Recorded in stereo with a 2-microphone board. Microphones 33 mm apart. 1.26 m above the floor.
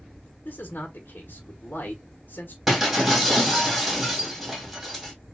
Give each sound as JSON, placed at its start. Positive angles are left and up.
{"t": 0.5, "sound": "a man speaking", "side_deg": 55, "distance_m": 1.1}
{"t": 2.7, "sound": "breaking glass", "side_deg": -5, "distance_m": 2.5}